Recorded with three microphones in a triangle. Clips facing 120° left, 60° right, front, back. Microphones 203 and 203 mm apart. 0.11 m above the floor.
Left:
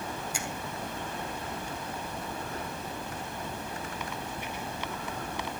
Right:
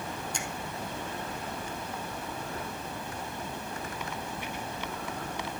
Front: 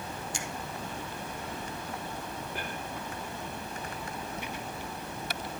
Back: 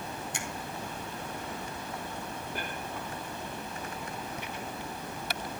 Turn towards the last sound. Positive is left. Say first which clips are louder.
# even, even
turn(degrees=-160)